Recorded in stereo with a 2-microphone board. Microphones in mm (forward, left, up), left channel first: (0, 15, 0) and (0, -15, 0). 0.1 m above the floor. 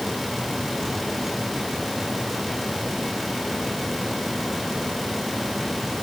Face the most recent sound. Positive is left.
No sound to turn to.